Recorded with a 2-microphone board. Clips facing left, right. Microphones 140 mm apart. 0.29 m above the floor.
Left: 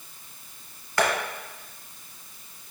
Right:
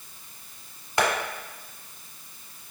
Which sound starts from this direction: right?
Tapping, at 1.0 s.